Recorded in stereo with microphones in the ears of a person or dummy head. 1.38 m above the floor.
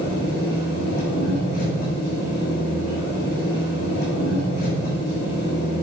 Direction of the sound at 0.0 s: 55° left (ahead or behind).